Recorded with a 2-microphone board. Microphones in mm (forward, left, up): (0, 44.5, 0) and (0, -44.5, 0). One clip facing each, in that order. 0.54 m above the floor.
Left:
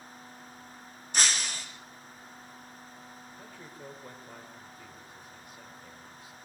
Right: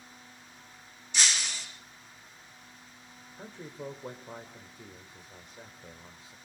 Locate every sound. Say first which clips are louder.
1.1 s breaking glass: left 1 dB; 45° left (ahead or behind), 3 m
3.4 s a man speaking: right 8 dB; 25° right (ahead or behind), 2 m